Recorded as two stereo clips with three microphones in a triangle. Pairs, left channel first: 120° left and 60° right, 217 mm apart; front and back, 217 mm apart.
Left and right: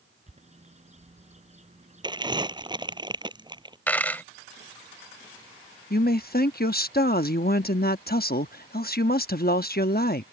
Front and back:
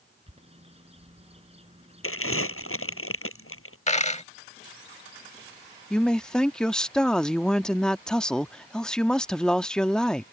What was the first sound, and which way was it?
A bird, 120° right.